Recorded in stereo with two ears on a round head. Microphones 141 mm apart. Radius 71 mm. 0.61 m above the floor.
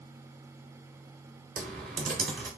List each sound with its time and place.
1.6 s typing on a keyboard: 55° right (ahead or behind), 2.5 m